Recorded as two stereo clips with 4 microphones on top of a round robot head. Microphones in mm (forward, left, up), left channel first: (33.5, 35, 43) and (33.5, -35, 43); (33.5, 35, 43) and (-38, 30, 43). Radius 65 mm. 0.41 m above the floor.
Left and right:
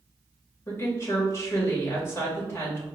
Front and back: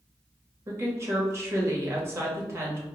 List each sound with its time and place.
0.7 s a woman speaking: 140° left, 2.0 m